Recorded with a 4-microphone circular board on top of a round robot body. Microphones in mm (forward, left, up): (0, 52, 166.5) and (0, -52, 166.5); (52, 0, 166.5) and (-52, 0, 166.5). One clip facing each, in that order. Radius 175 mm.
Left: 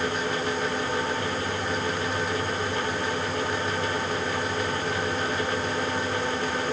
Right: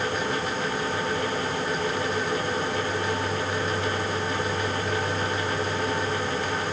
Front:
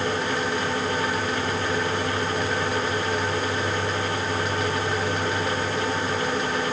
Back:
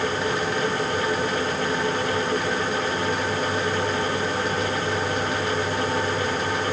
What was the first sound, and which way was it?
Only background noise.